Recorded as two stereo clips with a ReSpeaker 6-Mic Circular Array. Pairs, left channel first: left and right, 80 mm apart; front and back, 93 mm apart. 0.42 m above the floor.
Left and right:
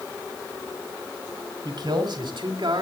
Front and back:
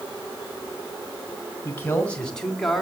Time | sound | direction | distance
1.6 | a man speaking | 65° right | 3.5 m